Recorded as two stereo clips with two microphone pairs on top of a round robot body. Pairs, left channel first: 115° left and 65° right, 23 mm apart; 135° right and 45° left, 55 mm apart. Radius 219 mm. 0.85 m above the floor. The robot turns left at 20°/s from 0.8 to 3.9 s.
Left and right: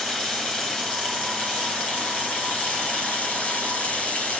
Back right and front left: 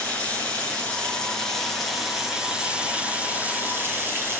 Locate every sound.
0.0 s running water: 160° left, 6.5 m; by 4.4 s 95° left, 6.5 m